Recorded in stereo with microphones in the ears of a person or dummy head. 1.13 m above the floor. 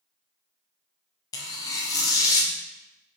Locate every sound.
1.3 s tearing paper: 20° left (ahead or behind), 0.5 m